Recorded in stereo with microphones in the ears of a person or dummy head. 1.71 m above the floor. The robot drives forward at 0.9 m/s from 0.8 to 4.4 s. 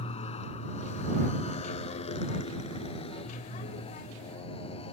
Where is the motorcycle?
30° left (ahead or behind).